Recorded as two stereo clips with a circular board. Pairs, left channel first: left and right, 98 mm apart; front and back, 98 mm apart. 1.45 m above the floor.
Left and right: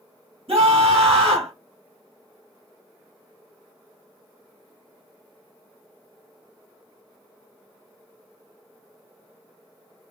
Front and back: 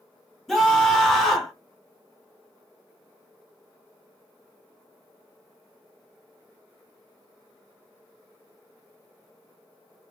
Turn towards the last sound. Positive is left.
turn(degrees=-90)